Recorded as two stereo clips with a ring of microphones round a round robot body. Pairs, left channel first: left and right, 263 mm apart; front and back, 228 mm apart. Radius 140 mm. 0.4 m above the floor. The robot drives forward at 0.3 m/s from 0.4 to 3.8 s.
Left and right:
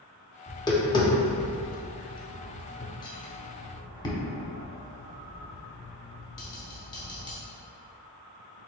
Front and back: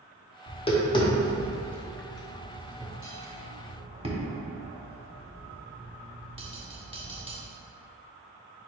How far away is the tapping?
About 1.2 m.